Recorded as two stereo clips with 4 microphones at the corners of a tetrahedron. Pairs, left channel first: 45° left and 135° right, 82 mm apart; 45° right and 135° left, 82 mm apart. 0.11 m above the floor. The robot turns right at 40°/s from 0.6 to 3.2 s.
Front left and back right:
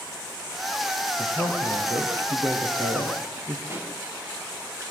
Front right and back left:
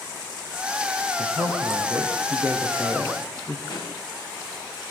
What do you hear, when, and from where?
1.2 s a man speaking: 155° left, 4.5 m; by 3.6 s 120° right, 4.5 m
3.7 s a pop: 75° right, 6.5 m